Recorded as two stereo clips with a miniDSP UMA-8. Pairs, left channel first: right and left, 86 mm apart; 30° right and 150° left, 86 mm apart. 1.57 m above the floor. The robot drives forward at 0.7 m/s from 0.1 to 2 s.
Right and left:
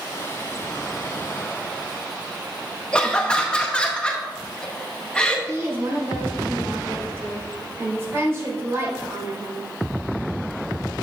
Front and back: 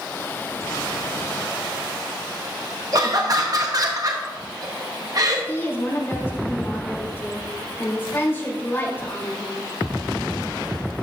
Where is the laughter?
170° right, 0.8 m.